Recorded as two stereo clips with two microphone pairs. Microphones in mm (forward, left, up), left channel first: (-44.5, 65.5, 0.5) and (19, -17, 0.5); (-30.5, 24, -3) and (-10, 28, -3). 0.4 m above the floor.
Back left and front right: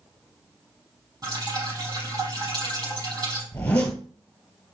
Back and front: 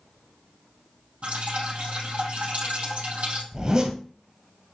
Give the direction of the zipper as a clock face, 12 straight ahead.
10 o'clock.